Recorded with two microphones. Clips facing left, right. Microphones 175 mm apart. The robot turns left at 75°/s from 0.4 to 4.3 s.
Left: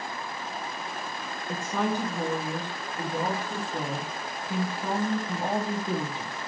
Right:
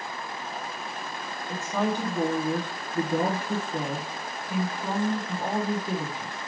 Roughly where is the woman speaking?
Ahead.